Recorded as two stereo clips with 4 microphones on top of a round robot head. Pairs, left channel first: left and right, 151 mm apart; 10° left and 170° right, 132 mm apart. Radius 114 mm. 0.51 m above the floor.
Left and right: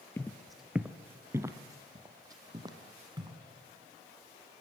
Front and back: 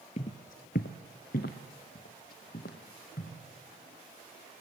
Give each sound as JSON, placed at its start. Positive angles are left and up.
{"t": 0.2, "sound": "footsteps", "azimuth_deg": 20, "distance_m": 0.6}